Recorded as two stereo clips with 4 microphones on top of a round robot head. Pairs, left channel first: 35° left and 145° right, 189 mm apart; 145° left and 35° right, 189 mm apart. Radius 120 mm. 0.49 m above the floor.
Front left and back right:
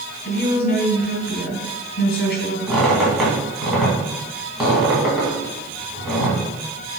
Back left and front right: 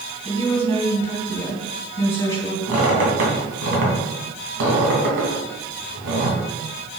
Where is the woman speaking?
75° left, 2 m.